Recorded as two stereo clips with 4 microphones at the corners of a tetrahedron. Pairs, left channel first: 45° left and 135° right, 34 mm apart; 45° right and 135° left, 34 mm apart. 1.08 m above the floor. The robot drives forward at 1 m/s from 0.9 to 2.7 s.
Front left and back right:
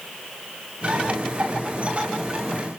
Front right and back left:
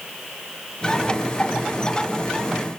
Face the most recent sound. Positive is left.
No sound to turn to.